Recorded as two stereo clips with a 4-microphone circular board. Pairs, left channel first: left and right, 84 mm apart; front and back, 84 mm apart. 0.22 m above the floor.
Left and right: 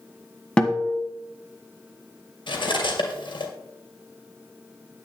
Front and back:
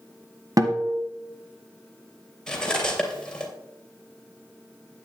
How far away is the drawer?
No drawer in this recording.